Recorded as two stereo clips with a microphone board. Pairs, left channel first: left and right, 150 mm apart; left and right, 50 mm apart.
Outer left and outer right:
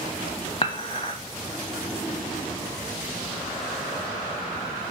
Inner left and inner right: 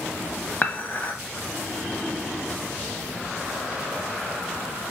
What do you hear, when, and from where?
0.6 s dishes clattering: 40° left (ahead or behind), 1.1 m